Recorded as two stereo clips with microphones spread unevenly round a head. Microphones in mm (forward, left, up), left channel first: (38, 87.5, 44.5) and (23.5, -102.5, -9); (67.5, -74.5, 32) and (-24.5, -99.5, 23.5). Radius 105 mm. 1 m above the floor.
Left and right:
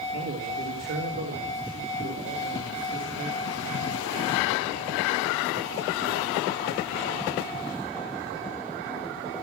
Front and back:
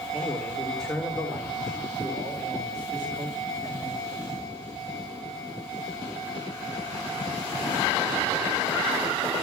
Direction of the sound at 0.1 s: 65° right.